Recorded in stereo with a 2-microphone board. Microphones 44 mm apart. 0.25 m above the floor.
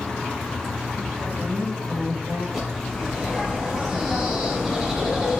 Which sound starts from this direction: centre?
A bird, at 2.5 s.